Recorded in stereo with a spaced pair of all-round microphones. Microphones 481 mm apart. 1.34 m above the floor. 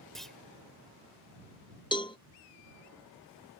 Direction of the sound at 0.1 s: Centre (ahead or behind).